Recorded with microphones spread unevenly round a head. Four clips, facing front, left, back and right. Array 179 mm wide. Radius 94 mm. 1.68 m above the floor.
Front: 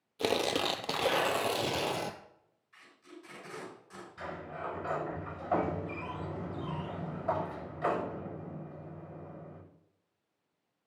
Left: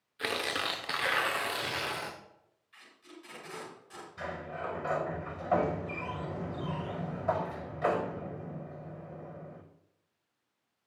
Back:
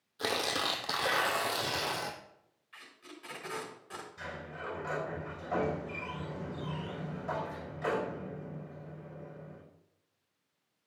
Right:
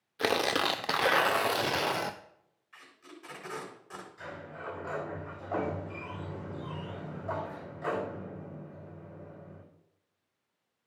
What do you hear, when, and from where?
0.2 s tearing paper: 50° right, 0.6 m
2.7 s tape being pulled: 135° right, 4.5 m
4.2 s a sliding door: 90° left, 6.5 m